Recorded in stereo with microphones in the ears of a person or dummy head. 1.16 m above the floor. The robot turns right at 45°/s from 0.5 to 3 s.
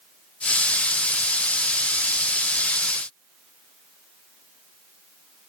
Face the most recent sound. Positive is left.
No sound to turn to.